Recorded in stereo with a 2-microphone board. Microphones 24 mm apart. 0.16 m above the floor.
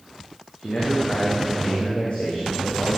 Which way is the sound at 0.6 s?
45° left (ahead or behind).